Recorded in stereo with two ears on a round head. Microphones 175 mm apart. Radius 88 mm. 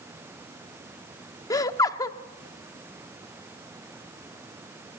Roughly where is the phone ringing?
No phone ringing in this recording.